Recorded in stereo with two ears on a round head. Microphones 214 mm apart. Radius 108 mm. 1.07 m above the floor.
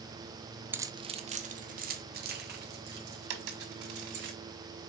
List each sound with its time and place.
0.7 s keys jangling: 10° right (ahead or behind), 0.7 m; by 4.3 s 55° right (ahead or behind), 4 m
3.3 s a dropped coin: 65° right (ahead or behind), 2.5 m